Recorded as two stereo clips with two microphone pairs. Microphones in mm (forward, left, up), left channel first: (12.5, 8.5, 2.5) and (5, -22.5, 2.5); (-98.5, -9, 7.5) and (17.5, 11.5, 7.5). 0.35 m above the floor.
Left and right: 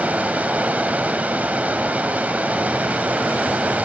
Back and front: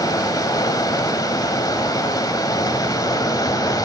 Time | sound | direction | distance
0.0 | running water | 120° right | 1.3 m